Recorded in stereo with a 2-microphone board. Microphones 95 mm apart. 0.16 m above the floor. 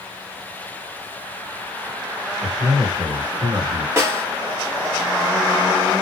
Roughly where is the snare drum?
Right.